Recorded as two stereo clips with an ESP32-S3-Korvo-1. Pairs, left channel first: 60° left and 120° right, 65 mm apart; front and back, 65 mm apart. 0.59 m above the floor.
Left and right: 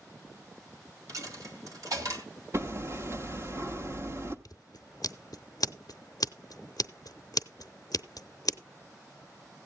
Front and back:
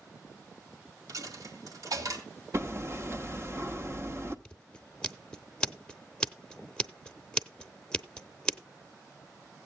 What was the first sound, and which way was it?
A dropped coin, 150° right.